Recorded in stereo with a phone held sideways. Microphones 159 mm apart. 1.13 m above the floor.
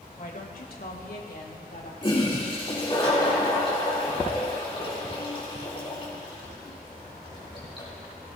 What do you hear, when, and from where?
0.2 s a woman speaking: 55° left (ahead or behind), 1.7 m; by 1.9 s 70° left (ahead or behind), 2.5 m
2.0 s a toilet flushing: 35° left (ahead or behind), 3 m